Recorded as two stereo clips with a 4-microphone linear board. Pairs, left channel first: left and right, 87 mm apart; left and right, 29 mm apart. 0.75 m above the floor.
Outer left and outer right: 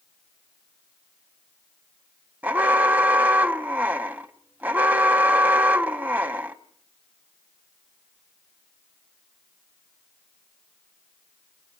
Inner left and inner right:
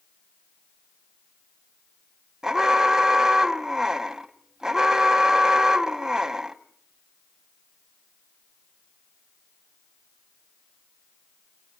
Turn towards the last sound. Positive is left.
turn(degrees=-20)  # may be behind; listen again after turning